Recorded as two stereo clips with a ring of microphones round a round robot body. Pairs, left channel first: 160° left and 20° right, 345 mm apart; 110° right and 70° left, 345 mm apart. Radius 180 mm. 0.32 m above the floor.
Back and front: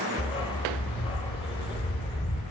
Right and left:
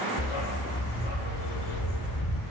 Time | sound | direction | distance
0.2 | a dog barking | 130° right | 4.5 m